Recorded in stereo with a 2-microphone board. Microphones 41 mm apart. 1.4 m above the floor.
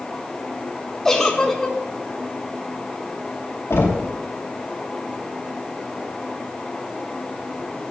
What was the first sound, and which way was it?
A giggle, 10° left (ahead or behind).